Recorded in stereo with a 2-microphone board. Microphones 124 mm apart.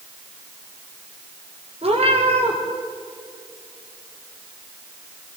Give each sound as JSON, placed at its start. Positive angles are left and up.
{"t": 1.8, "sound": "a cat meowing", "side_deg": -55, "distance_m": 5.0}